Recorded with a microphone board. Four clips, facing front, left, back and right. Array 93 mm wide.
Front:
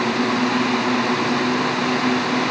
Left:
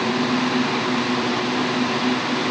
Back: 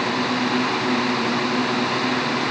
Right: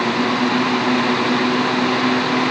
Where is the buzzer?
I don't hear a buzzer.